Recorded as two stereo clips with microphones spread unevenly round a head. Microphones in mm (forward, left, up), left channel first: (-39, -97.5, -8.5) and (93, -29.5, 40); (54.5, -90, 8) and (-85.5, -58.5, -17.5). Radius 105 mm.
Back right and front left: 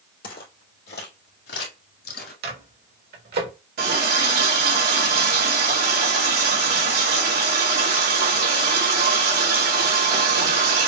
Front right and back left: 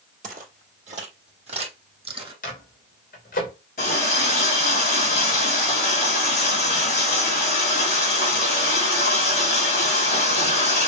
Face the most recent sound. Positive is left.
turn(degrees=40)